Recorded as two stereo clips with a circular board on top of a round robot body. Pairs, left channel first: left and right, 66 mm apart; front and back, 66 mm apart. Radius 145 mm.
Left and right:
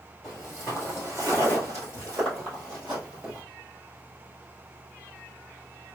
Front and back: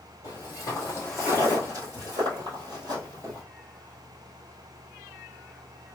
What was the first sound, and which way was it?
Footsteps, straight ahead.